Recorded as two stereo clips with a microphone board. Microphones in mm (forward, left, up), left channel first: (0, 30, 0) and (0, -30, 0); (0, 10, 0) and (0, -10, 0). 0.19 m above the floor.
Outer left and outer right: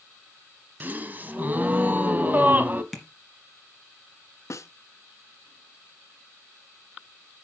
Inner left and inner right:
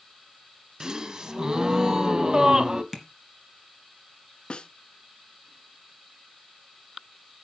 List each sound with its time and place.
0.8 s a gasp: 30° right (ahead or behind), 1.0 m
2.9 s tapping: centre (ahead or behind), 2.0 m
4.5 s a snare drum: 55° left (ahead or behind), 0.7 m